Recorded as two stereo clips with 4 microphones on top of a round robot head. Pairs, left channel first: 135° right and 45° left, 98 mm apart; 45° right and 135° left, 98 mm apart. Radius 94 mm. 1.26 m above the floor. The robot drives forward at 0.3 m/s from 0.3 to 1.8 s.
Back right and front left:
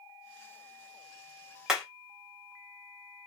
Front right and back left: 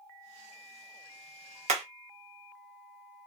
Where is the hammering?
130° left, 0.5 m; by 1.8 s 135° left, 0.5 m.